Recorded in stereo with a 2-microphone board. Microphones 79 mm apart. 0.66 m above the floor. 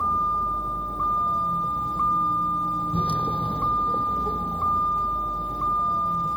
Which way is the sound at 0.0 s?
15° left (ahead or behind).